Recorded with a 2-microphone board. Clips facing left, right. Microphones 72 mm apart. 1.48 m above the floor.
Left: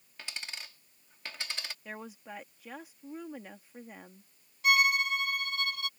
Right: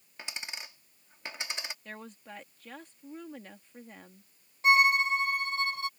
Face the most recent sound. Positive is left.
turn(degrees=-30)  # may be behind; listen again after turning